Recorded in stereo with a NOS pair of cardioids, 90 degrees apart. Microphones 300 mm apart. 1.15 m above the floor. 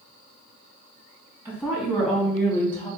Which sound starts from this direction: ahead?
A woman speaking, at 1.4 s.